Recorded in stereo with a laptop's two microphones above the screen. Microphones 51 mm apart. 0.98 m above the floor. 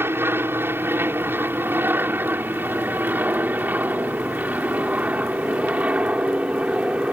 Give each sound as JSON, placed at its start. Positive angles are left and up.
{"t": 0.0, "sound": "an aircraft", "side_deg": -50}